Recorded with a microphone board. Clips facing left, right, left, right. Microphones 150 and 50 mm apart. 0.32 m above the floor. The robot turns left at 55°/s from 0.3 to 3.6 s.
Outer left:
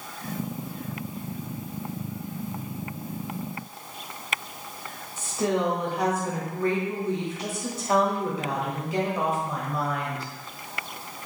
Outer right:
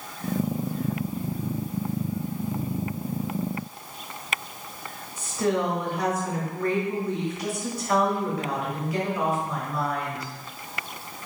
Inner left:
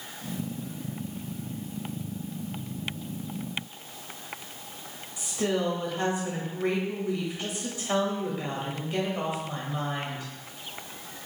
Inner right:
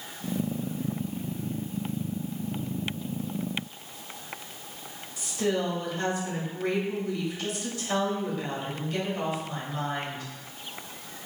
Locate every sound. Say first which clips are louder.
5.2 s a woman speaking: outer right 1 dB, even; 25° left (ahead or behind), 1.2 m